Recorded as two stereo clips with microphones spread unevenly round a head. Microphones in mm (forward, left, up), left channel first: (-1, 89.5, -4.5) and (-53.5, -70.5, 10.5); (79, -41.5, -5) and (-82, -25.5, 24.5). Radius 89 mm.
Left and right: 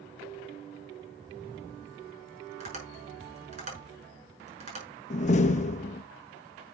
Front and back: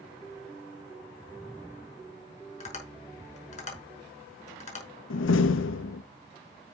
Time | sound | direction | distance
2.6 | tapping | 55° right | 5.5 m
5.1 | a door slam | 15° left | 0.6 m